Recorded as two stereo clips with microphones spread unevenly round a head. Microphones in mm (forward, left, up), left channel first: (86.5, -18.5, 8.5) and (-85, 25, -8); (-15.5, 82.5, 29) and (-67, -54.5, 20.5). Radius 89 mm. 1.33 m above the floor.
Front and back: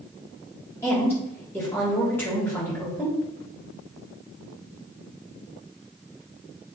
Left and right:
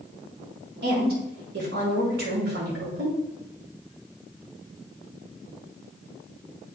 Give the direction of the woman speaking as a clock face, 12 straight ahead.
3 o'clock.